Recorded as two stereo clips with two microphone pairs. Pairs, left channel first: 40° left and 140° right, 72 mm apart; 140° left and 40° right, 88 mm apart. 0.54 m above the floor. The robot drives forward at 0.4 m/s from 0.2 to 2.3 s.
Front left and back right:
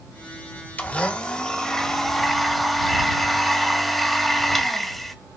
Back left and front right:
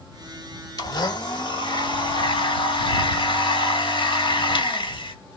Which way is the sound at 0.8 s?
105° left.